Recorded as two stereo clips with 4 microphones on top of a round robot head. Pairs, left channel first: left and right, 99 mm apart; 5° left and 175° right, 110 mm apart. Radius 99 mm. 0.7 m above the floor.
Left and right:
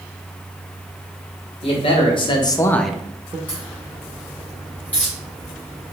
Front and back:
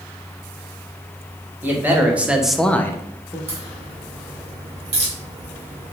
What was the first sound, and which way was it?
A man speaking, 110° left.